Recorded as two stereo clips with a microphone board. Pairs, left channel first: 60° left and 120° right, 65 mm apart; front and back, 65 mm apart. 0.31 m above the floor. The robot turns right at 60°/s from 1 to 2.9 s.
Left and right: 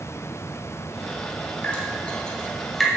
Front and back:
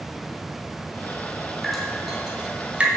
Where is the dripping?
80° left, 1.1 m; by 2.9 s 155° left, 1.1 m.